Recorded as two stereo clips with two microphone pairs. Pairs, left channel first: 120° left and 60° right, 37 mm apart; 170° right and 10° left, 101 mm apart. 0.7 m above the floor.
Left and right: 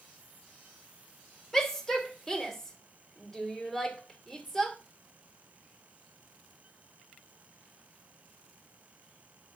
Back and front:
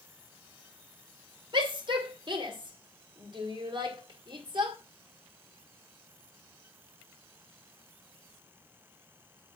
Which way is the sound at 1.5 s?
45° left.